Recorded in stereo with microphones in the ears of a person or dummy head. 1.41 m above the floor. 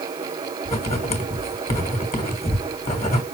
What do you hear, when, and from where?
0.7 s writing: 30° left (ahead or behind), 1.4 m